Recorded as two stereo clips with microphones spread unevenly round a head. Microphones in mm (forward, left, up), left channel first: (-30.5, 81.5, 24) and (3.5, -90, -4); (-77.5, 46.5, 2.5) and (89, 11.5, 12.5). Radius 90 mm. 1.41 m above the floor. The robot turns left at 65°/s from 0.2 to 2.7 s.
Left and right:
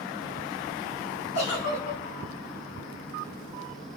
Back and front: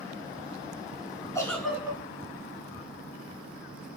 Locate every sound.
1.4 s a giggle: 95° left, 3.5 m; by 2.0 s 55° left, 3.5 m